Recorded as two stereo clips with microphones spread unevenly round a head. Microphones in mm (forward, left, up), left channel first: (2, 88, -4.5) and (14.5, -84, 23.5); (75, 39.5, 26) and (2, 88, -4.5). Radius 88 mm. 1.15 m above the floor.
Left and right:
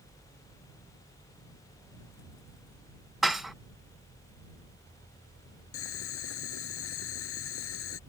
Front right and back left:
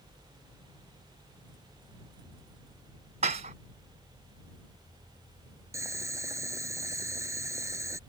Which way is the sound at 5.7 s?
90° left.